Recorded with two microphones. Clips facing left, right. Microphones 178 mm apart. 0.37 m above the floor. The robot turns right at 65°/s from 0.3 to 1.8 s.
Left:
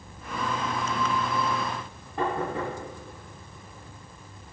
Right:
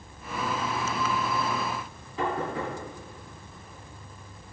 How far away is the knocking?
About 3 m.